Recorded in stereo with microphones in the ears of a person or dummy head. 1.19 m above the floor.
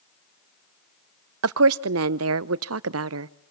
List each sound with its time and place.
1.4 s a woman speaking: 70° right (ahead or behind), 0.6 m